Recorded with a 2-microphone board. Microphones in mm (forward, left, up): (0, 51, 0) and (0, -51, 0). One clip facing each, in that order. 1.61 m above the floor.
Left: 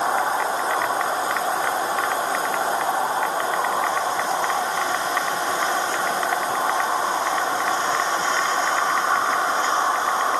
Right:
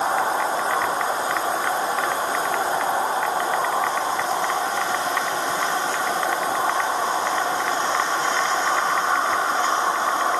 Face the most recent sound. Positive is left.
No sound to turn to.